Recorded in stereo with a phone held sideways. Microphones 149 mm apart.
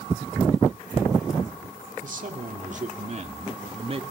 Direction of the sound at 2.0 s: 60° right (ahead or behind).